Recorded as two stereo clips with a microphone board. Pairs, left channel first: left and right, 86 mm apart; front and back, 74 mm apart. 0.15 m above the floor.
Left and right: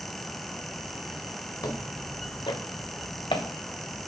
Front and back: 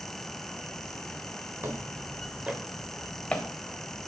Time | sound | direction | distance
1.6 | footsteps | 135° left | 1.3 m